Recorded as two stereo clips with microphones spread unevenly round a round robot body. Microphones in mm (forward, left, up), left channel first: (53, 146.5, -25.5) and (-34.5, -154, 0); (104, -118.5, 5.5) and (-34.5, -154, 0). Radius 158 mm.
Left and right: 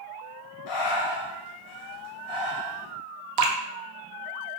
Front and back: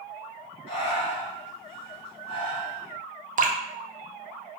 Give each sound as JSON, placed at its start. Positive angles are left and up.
{"t": 0.7, "sound": "breathing", "azimuth_deg": 70, "distance_m": 1.1}
{"t": 3.4, "sound": "dripping", "azimuth_deg": -140, "distance_m": 0.6}